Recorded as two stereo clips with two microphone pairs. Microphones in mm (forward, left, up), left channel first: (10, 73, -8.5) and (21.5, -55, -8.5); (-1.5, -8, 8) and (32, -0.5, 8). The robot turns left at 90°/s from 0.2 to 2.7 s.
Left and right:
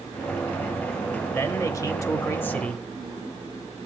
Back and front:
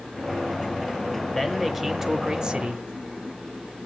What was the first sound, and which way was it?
A man speaking, 145° left.